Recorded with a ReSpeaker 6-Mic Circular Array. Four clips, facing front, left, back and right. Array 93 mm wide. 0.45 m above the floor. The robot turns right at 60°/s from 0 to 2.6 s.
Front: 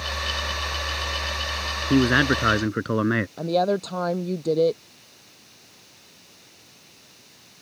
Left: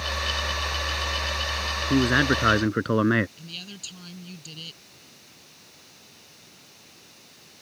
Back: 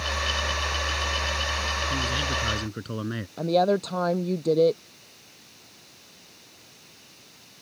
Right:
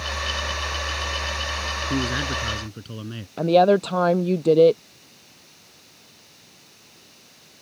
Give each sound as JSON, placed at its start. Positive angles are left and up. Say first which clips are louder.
{"t": 1.9, "sound": "a man speaking", "louder": "left 6 dB, front 15 dB", "azimuth_deg": 10}
{"t": 3.4, "sound": "a woman speaking", "louder": "right 29 dB, back 3 dB", "azimuth_deg": -90}